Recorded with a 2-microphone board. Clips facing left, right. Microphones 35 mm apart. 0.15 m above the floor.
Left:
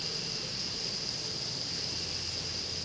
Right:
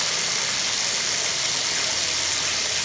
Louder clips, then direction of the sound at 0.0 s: Right 13 dB; 85° right.